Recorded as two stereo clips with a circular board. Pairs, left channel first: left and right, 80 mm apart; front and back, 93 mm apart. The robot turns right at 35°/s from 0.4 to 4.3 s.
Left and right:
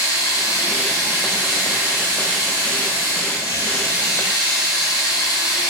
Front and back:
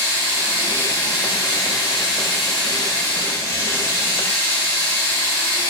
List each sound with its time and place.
0.0 s running water: 160° right, 1.3 m; by 5.7 s 20° right, 1.3 m